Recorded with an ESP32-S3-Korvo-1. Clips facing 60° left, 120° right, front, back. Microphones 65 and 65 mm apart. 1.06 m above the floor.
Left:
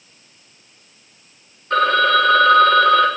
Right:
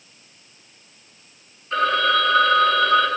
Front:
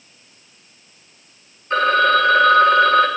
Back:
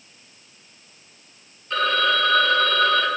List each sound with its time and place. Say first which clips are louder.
1.7 s a phone ringing: left 4 dB, front 6 dB; 55° left, 1.9 m